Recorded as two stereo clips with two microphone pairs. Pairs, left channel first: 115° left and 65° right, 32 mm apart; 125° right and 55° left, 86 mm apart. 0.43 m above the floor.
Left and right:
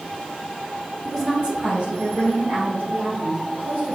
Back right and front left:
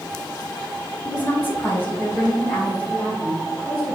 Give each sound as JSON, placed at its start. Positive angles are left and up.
{"t": 1.1, "sound": "a woman speaking", "azimuth_deg": -150, "distance_m": 1.0}